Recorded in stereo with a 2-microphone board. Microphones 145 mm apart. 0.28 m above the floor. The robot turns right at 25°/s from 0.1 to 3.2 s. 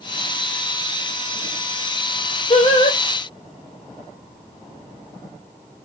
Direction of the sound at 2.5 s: 45° left (ahead or behind).